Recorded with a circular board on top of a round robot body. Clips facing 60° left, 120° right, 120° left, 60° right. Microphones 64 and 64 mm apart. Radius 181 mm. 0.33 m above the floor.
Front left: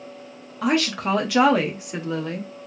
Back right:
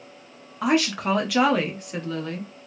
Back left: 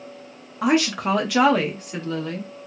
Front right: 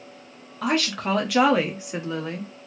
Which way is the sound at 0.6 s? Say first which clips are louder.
Even, back left 4 dB; 175° left.